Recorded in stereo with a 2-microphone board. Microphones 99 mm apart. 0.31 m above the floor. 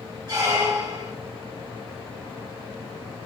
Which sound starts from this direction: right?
A squeak, at 0.3 s.